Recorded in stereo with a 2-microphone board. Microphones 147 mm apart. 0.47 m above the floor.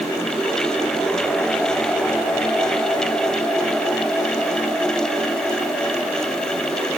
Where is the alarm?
No alarm in this recording.